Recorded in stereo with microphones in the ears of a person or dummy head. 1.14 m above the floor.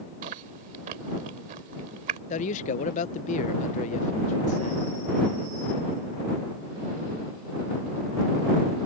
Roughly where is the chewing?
Right.